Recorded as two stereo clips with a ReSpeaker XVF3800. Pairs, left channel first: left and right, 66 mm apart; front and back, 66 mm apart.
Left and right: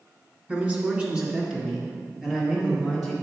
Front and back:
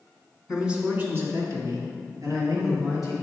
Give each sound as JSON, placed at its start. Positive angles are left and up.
{"t": 0.5, "sound": "a man speaking", "azimuth_deg": -100, "distance_m": 1.6}